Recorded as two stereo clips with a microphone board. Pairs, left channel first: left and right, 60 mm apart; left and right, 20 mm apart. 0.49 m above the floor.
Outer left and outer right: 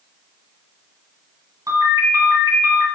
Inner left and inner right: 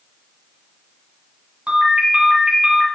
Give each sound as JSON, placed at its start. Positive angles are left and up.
{"t": 1.7, "sound": "a ringtone", "side_deg": -75, "distance_m": 1.7}